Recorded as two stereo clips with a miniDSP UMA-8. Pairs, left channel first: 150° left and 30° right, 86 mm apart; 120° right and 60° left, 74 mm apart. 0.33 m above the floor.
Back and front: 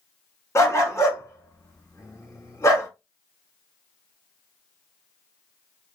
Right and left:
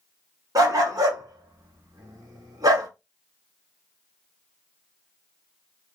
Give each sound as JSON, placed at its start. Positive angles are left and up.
{"t": 0.6, "sound": "a dog barking", "azimuth_deg": 95, "distance_m": 1.0}